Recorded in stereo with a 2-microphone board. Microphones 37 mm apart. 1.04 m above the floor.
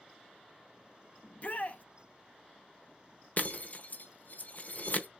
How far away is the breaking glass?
About 1.0 m.